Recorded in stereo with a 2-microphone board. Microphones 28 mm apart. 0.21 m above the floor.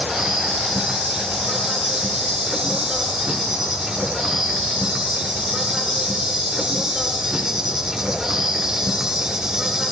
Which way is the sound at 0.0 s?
25° right (ahead or behind).